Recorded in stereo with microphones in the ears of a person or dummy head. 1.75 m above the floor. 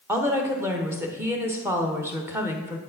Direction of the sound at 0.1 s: 15° right (ahead or behind).